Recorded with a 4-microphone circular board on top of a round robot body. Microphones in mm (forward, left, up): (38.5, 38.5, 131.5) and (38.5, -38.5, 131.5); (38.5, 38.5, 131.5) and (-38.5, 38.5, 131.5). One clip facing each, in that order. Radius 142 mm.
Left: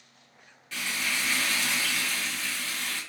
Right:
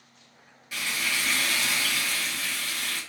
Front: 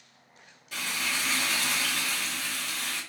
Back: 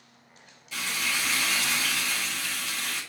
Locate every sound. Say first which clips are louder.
0.7 s frying: right 1 dB, back 1 dB; 15° right, 2.5 m